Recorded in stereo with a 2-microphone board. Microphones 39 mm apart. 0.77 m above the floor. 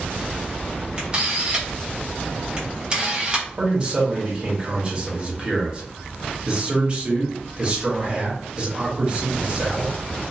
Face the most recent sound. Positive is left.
turn(degrees=-30)  # may be behind; listen again after turning